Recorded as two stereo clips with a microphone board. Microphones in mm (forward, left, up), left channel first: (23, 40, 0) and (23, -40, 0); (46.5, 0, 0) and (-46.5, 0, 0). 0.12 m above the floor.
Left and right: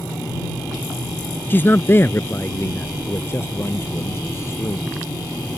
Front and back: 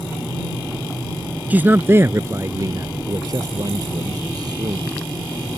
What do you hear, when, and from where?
1.5 s a man speaking: 125° left; by 4.9 s 145° left